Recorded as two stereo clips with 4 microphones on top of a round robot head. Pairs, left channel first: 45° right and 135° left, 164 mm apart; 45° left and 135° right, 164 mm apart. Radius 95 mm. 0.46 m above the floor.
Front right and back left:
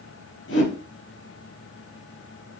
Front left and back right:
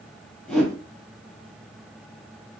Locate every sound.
0.5 s a whoosh: 45° right, 5.5 m